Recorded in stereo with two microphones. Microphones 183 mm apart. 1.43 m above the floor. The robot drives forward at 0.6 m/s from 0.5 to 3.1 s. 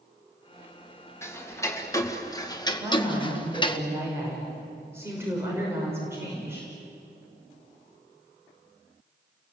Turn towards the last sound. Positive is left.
turn(degrees=-15)  # may be behind; listen again after turning